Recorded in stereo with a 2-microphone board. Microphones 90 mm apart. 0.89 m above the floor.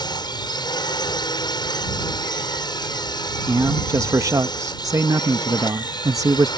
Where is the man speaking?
40° right (ahead or behind).